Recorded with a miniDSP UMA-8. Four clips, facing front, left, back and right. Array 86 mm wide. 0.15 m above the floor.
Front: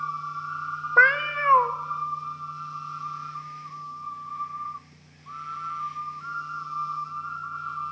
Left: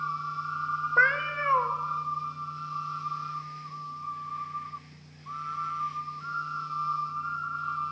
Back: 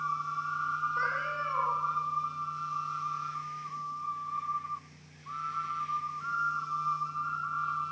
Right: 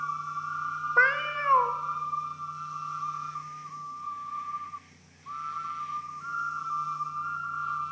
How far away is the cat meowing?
About 0.9 m.